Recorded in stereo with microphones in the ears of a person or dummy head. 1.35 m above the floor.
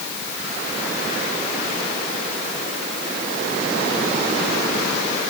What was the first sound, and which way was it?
Only background noise.